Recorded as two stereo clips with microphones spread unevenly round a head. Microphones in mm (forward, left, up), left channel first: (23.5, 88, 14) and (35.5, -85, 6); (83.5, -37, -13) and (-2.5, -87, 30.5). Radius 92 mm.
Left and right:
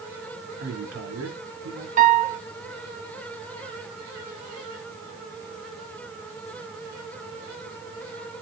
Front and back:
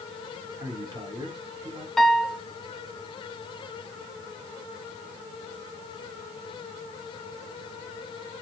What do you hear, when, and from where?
0.6 s a man speaking: 105° right, 3.5 m
2.0 s a piano: 45° right, 0.9 m